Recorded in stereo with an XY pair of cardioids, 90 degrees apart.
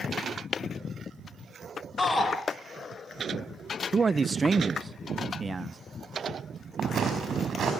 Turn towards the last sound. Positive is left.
turn(degrees=-55)